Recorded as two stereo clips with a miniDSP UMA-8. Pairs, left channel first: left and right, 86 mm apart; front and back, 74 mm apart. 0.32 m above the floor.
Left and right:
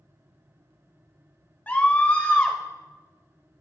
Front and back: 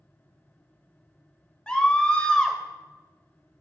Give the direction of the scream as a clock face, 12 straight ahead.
10 o'clock.